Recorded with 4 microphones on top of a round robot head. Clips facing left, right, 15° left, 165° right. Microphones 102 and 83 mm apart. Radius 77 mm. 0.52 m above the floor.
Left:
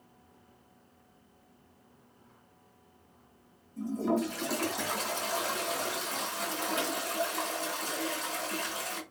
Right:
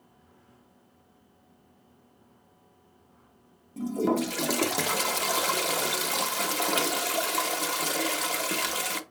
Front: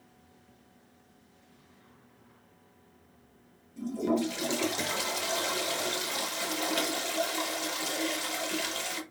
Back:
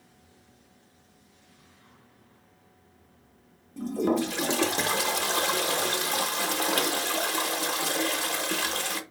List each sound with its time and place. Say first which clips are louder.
3.8 s a toilet flushing: right 4 dB, back 3 dB; 115° right, 0.7 m